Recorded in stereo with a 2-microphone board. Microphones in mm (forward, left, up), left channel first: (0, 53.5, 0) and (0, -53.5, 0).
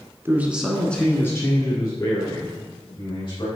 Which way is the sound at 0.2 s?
20° right (ahead or behind).